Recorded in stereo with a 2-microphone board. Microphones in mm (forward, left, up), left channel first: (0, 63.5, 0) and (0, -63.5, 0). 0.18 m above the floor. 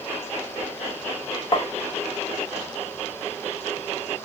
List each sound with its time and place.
1.5 s tapping: 45° left (ahead or behind), 0.6 m